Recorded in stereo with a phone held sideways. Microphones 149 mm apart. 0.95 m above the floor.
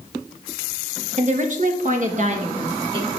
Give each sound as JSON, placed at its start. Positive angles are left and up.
{"t": 1.2, "sound": "a woman speaking", "side_deg": -50, "distance_m": 1.5}